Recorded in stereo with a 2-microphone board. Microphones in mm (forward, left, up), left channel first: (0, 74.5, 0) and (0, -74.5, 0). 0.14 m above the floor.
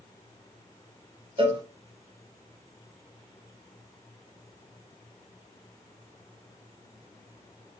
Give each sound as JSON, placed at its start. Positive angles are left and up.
{"t": 1.4, "sound": "a cowbell", "side_deg": -35, "distance_m": 0.7}